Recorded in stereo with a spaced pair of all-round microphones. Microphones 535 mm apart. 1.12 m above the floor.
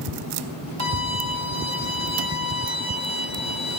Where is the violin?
55° left (ahead or behind), 4 m.